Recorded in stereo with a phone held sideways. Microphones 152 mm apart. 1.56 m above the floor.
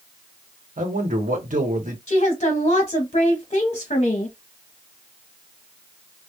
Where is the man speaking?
60° right (ahead or behind), 1.0 m.